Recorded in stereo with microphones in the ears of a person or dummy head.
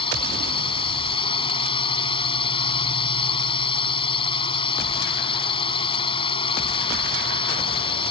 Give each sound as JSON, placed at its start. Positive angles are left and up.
{"t": 0.0, "sound": "a drone", "side_deg": 30}